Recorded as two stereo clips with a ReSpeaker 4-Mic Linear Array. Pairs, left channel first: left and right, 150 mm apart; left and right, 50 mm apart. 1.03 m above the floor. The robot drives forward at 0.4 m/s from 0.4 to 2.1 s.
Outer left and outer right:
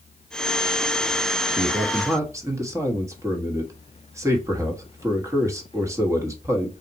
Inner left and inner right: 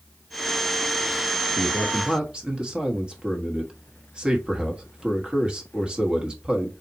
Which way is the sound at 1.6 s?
25° right (ahead or behind).